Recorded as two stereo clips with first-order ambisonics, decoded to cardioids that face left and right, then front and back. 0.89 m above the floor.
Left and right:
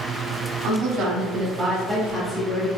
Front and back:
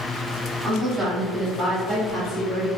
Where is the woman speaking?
105° right, 1.4 m; by 2.7 s 95° left, 1.0 m.